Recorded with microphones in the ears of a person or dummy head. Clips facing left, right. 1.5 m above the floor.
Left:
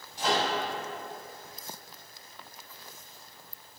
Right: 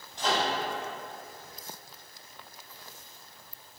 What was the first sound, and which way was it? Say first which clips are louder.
A microwave: left 1 dB; 10° left (ahead or behind).